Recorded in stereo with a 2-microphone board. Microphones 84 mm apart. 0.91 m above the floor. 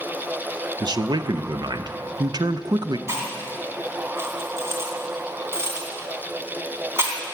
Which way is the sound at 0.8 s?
55° right (ahead or behind).